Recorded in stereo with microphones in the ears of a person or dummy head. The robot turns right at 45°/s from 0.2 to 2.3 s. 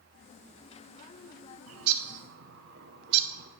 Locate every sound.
1.7 s a bird: 75° right (ahead or behind), 0.8 m; by 3.5 s 60° right (ahead or behind), 0.8 m